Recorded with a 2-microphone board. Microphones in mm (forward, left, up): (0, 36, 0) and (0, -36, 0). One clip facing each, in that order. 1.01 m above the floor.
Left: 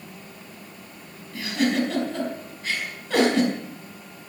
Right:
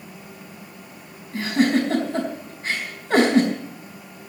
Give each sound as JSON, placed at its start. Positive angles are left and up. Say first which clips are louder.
{"t": 1.3, "sound": "a giggle", "louder": "right 4 dB", "side_deg": -35, "distance_m": 4.5}